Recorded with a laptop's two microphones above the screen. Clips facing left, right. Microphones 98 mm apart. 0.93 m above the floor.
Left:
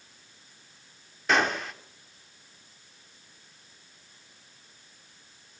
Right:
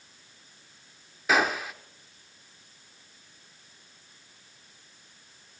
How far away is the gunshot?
About 1.3 m.